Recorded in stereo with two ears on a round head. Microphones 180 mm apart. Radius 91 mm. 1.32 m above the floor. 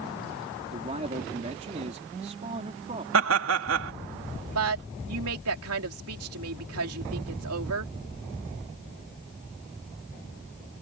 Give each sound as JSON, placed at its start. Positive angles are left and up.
{"t": 0.7, "sound": "a man speaking", "side_deg": -35}
{"t": 3.1, "sound": "laughter", "side_deg": -65}
{"t": 4.5, "sound": "a woman speaking", "side_deg": -75}